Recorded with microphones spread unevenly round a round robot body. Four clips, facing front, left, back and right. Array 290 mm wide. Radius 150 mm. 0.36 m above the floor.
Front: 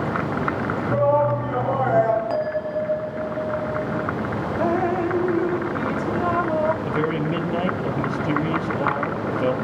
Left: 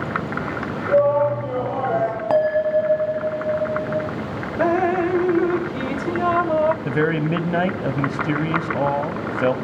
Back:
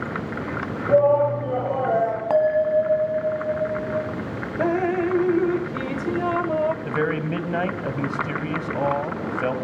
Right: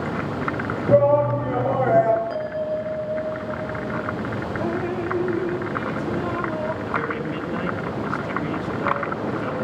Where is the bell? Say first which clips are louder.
Left 8 dB, back 6 dB; 100° left, 1.6 m.